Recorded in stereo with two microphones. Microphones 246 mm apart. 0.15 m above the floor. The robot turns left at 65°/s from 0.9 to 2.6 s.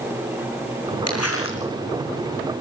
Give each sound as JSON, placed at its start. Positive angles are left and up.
{"t": 1.1, "sound": "crumpling", "azimuth_deg": 85, "distance_m": 3.0}